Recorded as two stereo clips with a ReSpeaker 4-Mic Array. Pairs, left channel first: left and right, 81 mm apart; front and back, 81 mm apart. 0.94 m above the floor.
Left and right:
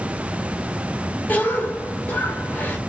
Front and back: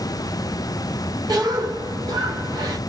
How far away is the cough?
About 1.1 m.